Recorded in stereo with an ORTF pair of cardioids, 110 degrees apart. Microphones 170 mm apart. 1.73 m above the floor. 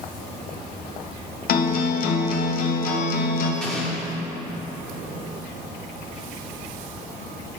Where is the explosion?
5° left, 1.5 m.